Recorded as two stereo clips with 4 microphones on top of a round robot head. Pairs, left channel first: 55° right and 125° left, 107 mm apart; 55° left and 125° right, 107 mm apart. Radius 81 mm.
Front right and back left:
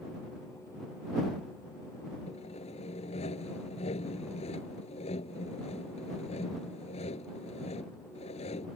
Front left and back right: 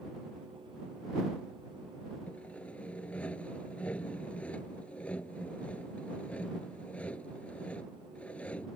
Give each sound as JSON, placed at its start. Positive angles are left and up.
{"t": 2.3, "sound": "sawing", "azimuth_deg": -25}